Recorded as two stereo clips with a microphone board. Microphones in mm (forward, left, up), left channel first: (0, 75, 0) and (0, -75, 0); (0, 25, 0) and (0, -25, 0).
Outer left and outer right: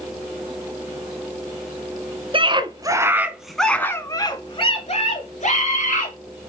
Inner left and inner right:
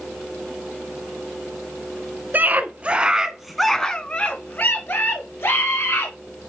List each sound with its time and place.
2.3 s a scream: 35° right (ahead or behind), 1.5 m; by 6.2 s 55° left (ahead or behind), 2.5 m